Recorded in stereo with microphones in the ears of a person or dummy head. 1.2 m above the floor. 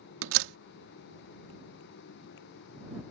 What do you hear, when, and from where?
0.2 s a door slam: 75° right (ahead or behind)